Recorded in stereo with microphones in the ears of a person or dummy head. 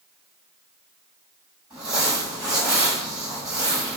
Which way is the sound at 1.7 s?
15° right (ahead or behind).